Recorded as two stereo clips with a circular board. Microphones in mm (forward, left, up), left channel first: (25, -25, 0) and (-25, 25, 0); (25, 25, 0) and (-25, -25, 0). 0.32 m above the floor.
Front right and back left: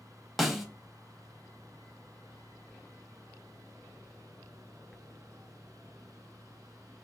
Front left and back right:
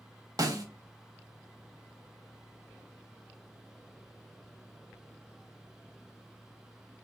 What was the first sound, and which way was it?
A snare drum, 140° right.